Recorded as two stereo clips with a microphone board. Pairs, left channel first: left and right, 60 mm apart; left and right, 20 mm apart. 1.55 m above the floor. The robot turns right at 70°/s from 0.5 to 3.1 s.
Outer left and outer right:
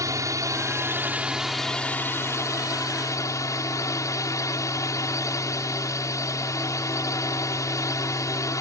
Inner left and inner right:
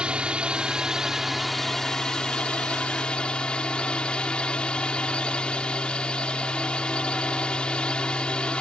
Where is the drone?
70° right; by 8.6 s 110° left.